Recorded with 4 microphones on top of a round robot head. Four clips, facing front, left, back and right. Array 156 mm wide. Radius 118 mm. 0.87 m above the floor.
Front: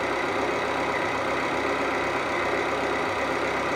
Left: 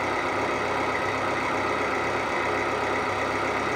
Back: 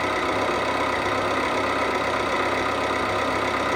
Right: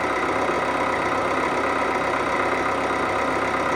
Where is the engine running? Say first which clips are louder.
Right 4 dB, back 2 dB; 105° right, 1.6 m.